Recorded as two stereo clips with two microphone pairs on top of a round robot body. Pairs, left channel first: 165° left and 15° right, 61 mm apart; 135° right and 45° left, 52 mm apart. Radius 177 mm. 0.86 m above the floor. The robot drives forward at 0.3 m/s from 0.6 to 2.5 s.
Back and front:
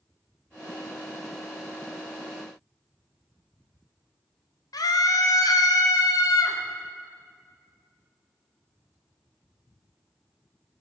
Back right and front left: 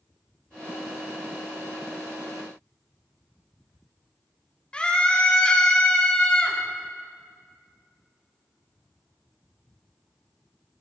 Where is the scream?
150° left, 2.5 m.